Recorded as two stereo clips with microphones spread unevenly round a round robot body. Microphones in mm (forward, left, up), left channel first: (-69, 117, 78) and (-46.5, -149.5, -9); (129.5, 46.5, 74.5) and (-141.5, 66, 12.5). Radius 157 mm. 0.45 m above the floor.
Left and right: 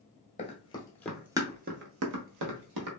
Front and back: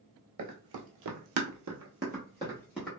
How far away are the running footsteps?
About 0.9 m.